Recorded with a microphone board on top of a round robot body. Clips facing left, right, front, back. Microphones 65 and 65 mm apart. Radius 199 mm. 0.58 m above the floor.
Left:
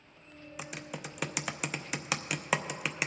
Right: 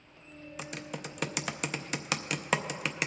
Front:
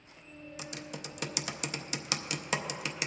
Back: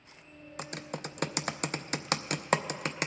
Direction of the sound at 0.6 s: 175° left.